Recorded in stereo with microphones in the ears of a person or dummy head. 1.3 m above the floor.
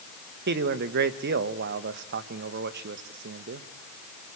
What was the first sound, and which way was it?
A man speaking, 45° right (ahead or behind).